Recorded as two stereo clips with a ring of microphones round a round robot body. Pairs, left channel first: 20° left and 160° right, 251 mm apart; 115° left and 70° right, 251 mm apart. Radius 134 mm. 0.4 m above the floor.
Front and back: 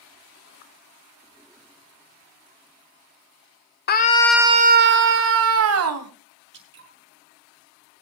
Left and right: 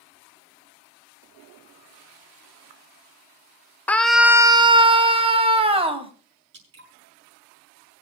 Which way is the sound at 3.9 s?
30° left.